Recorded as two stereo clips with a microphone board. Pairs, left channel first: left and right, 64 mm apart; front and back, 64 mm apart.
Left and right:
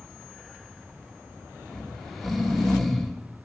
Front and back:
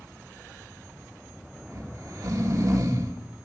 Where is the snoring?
Straight behind, 1.5 m.